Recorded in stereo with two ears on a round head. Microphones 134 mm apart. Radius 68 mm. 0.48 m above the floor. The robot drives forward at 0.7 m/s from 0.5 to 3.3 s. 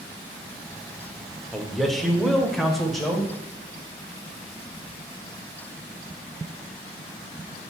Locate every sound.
1.5 s a man speaking: centre (ahead or behind), 1.0 m